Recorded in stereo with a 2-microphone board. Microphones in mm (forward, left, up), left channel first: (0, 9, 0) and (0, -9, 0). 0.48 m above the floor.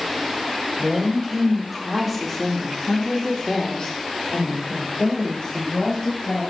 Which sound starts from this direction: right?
A woman speaking, at 0.8 s.